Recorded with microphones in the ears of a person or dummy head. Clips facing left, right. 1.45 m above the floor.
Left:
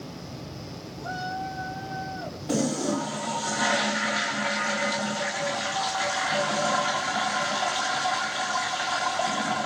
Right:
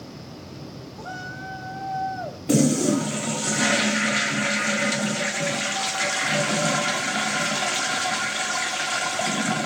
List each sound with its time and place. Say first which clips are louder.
1.0 s a shout: left 6 dB; 50° right (ahead or behind), 7.5 m; by 2.4 s 60° right (ahead or behind), 8 m
2.5 s a toilet flushing: right 6 dB; 30° right (ahead or behind), 0.5 m